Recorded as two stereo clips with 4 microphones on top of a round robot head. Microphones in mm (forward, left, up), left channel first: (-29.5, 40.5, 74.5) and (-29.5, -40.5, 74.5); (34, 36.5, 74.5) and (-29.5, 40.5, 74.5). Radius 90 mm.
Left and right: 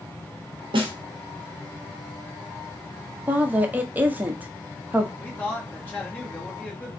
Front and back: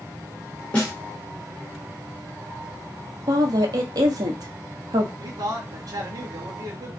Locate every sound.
0.7 s a snare drum: 75° right, 1.7 m
3.3 s a woman speaking: 160° right, 1.2 m
5.2 s a man speaking: 160° left, 1.8 m